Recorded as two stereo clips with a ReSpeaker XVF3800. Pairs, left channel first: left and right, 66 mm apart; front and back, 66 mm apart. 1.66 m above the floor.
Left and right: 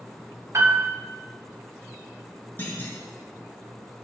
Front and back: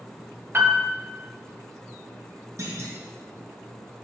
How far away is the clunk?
About 1.4 m.